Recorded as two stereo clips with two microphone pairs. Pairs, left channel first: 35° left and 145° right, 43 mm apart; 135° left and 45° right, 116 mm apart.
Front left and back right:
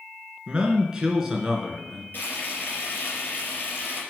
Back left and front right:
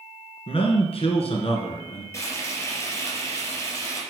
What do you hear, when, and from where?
0.5 s a man speaking: 155° left, 2.5 m; by 2.0 s 135° left, 2.5 m
2.1 s frying: 70° left, 4.5 m